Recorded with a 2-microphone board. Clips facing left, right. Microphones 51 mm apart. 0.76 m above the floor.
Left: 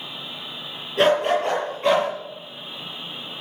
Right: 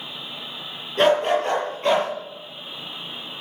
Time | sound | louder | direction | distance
1.0 | a dog barking | even | 10° left (ahead or behind) | 7.5 m